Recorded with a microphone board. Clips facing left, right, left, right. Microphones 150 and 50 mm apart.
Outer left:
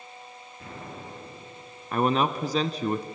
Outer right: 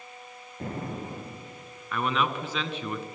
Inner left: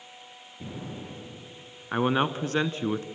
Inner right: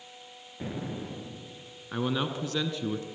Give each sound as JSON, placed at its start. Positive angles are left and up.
{"t": 0.6, "sound": "an explosion", "side_deg": -45, "distance_m": 3.0}
{"t": 1.9, "sound": "a man speaking", "side_deg": 40, "distance_m": 1.3}